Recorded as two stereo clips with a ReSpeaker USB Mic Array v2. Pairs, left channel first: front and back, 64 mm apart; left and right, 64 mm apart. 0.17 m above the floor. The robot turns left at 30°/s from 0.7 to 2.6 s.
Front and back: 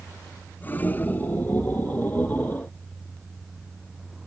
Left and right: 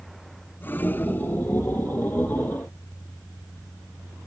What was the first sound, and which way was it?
Only background noise.